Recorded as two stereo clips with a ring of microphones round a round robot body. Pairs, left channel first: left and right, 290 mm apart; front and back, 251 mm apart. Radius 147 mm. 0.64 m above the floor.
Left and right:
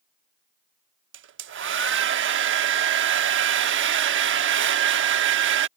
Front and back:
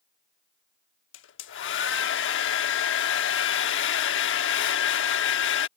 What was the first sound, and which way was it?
A hair dryer, 45° right.